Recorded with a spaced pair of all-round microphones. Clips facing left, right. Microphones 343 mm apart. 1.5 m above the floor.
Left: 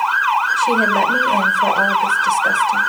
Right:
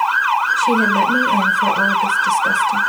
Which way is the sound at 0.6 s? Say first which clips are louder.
Right 2 dB; 10° right (ahead or behind).